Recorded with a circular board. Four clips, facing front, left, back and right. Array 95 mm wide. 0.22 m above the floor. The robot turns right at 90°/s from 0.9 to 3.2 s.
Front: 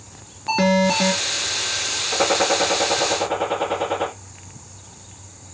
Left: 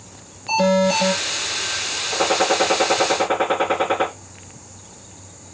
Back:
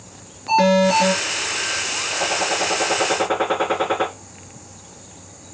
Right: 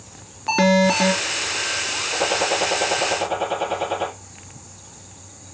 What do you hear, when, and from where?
0.5 s an alarm: 75° right, 4.5 m; by 1.1 s 55° right, 4.5 m
2.1 s a gunshot: 35° left, 3.5 m; by 4.1 s 130° left, 3.5 m